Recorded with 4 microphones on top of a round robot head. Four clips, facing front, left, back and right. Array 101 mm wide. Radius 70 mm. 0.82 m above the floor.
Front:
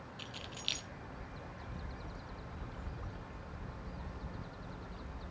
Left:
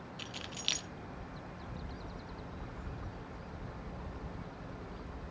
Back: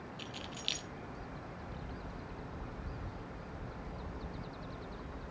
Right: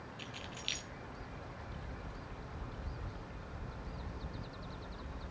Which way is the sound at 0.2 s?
90° left.